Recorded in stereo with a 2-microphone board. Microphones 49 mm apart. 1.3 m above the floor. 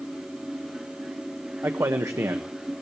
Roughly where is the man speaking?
Right.